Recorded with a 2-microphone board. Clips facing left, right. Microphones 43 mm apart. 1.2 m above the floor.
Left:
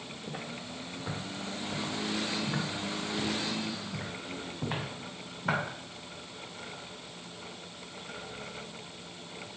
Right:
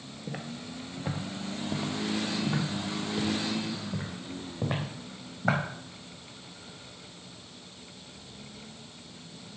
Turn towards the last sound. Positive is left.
turn(degrees=-70)  # may be behind; listen again after turning